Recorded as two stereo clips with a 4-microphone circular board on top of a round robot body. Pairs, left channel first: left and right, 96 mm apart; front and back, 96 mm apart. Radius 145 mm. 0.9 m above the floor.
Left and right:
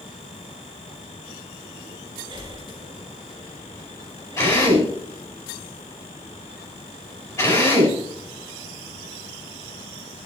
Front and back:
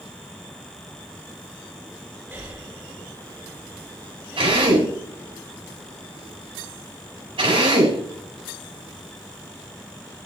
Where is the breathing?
115° right, 2.5 m.